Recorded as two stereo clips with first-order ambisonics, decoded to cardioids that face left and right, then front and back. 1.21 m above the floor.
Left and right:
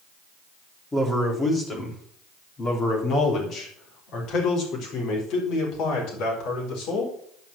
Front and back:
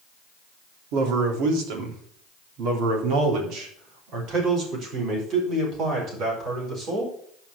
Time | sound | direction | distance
0.9 | a man speaking | 170° left | 3.5 m